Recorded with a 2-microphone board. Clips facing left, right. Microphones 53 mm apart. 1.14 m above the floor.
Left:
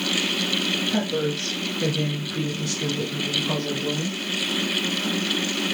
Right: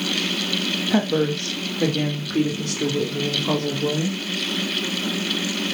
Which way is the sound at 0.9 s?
40° right (ahead or behind).